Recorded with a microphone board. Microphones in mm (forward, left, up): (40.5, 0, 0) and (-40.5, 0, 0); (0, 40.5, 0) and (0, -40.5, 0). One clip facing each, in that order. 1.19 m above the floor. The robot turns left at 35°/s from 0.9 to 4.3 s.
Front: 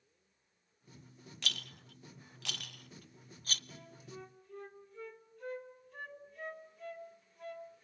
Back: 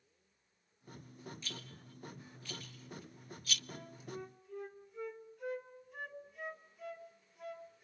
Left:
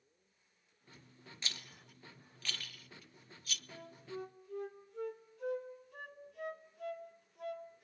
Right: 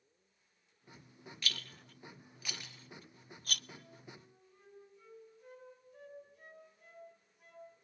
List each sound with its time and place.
1.4 s a rattle: 25° left, 0.6 m; by 3.6 s 55° right, 0.6 m
3.7 s a flute: 120° left, 3 m; by 7.8 s 100° left, 3 m